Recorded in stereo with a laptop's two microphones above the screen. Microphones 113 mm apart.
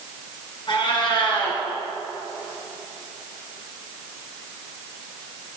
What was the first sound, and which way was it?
A cat meowing, 50° left (ahead or behind).